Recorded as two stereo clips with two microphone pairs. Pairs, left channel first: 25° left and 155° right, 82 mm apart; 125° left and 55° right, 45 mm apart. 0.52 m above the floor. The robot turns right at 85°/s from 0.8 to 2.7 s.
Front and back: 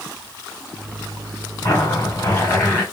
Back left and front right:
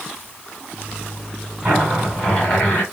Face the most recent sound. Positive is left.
turn(degrees=80)